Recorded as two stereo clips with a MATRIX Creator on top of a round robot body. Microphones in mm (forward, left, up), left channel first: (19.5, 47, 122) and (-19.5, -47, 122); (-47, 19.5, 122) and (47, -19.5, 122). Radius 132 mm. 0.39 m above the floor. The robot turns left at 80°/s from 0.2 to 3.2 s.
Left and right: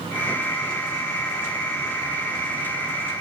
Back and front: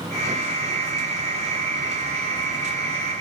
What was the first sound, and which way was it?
Only background noise.